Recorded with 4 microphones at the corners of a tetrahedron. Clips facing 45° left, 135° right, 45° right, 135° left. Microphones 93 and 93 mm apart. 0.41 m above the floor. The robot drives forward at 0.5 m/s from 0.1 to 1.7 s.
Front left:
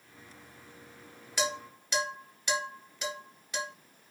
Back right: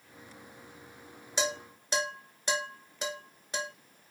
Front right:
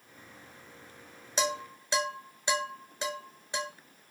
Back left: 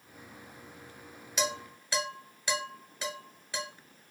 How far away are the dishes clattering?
About 0.8 m.